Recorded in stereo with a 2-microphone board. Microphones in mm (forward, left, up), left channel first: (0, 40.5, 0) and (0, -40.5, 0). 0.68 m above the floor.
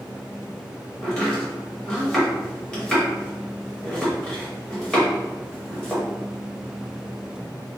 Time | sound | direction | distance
1.0 | chopping | 15° left (ahead or behind) | 1.1 m